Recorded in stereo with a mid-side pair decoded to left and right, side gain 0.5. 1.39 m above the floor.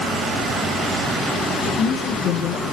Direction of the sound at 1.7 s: 70° left.